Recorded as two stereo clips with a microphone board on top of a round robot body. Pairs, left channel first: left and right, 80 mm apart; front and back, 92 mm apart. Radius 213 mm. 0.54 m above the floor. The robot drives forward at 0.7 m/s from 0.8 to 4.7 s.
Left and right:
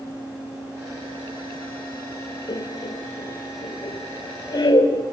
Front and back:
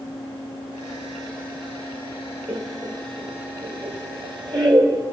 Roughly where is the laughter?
Behind left.